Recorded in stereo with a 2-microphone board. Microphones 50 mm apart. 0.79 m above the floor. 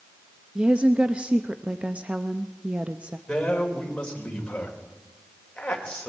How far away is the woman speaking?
About 0.6 m.